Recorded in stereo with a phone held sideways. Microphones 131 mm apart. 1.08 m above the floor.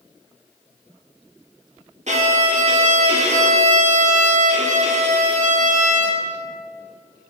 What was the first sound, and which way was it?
A violin, 60° right (ahead or behind).